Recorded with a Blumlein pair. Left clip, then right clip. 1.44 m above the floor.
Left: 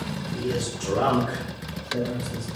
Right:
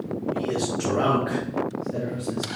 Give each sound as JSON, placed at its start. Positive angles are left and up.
{"t": 0.3, "sound": "a man speaking", "azimuth_deg": -60, "distance_m": 1.4}